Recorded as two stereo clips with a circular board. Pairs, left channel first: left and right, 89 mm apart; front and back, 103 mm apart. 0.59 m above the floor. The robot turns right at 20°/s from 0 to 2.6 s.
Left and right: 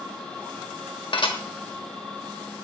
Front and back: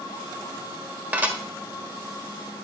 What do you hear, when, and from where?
1.1 s dishes clattering: 105° left, 1.2 m; by 1.4 s 110° left, 1.2 m